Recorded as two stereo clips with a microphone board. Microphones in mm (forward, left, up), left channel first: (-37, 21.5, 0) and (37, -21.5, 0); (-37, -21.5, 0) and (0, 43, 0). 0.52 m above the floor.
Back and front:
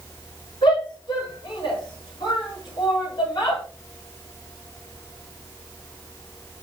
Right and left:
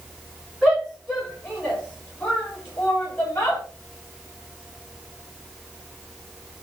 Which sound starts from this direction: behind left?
A shout, at 0.6 s.